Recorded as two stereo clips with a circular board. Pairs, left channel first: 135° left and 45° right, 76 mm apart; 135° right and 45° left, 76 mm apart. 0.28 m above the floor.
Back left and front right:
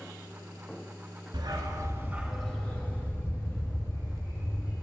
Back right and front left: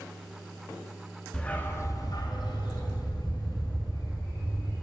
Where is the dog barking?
55° right, 1.3 m; by 4.7 s straight behind, 4.5 m.